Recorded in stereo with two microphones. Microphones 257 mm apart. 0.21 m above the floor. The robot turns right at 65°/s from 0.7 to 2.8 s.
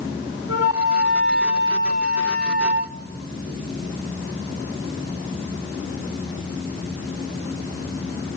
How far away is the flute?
About 0.6 m.